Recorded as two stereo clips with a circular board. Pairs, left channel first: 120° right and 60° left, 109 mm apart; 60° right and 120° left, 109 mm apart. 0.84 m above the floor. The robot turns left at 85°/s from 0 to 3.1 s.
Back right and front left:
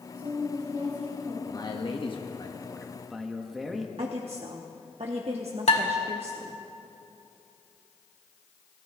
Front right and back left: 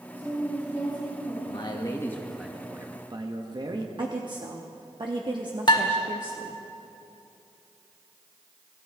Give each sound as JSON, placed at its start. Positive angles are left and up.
{"t": 0.1, "sound": "a woman speaking", "azimuth_deg": 50, "distance_m": 6.0}
{"t": 1.4, "sound": "a man speaking", "azimuth_deg": -70, "distance_m": 1.3}
{"t": 4.0, "sound": "a woman speaking", "azimuth_deg": 75, "distance_m": 1.0}
{"t": 5.7, "sound": "dishes clattering", "azimuth_deg": -105, "distance_m": 1.7}